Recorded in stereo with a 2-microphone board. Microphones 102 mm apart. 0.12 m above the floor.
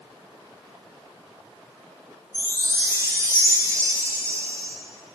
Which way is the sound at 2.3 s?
25° right (ahead or behind).